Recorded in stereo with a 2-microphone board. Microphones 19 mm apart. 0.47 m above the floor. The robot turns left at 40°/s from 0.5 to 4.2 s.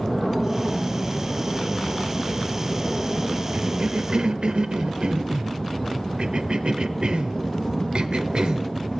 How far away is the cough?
About 1.2 m.